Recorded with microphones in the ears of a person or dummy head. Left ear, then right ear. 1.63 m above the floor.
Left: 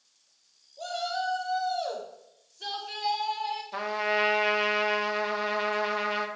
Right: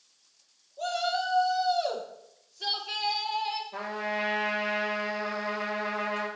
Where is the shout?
5° right (ahead or behind), 1.6 m.